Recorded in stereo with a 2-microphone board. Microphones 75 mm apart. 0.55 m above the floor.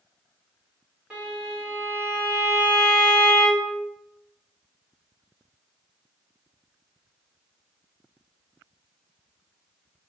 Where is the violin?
15° right (ahead or behind), 2.0 m.